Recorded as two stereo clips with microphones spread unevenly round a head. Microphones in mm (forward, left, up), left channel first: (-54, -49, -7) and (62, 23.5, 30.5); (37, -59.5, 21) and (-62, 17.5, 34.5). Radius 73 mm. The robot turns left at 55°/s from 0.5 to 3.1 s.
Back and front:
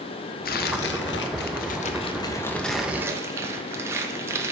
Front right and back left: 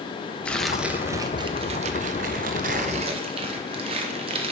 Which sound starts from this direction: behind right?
Tearing paper, at 0.5 s.